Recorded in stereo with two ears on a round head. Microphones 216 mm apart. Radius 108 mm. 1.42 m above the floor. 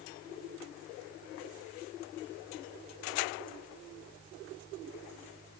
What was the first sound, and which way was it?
Only background noise.